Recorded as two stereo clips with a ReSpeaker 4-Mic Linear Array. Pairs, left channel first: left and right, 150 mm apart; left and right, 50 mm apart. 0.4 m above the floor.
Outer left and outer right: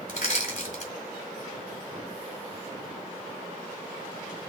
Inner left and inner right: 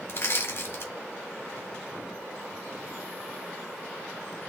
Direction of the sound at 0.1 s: 60° left (ahead or behind).